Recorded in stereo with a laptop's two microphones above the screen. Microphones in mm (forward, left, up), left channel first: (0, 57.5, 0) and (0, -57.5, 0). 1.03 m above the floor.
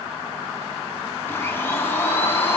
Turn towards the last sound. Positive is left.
turn(degrees=20)  # may be behind; listen again after turning